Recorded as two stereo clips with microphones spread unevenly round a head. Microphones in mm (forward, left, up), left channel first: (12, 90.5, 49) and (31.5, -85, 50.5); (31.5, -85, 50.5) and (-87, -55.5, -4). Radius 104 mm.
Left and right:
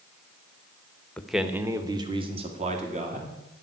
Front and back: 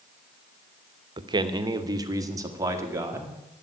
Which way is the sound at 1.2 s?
Straight behind.